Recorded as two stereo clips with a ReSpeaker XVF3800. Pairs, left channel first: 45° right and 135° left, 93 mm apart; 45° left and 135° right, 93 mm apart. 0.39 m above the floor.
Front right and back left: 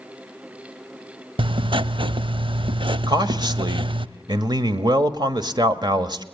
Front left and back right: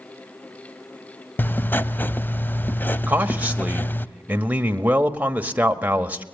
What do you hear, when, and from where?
1.4 s writing: 115° left, 0.5 m
3.1 s a man speaking: 155° left, 1.3 m